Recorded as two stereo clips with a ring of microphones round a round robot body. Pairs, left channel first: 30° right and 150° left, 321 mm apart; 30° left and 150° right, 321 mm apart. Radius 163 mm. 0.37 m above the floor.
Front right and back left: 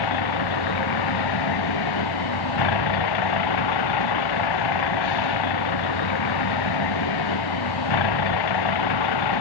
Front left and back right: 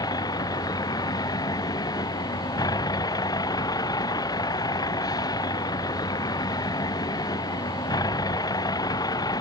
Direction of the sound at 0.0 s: 50° right.